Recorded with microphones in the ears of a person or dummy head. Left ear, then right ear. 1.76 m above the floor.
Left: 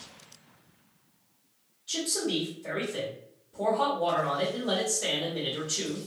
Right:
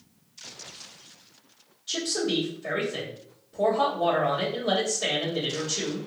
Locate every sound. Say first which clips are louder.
1.9 s a man speaking: right 3 dB; 40° right (ahead or behind), 1.5 m